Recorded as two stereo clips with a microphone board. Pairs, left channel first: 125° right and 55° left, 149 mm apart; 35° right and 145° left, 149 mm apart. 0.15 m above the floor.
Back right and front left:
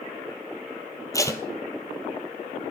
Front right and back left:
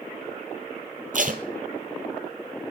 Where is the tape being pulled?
165° left, 1.1 m.